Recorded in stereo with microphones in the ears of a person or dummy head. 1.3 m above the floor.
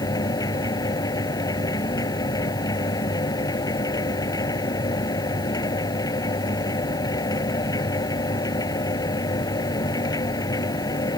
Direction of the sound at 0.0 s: 20° left (ahead or behind).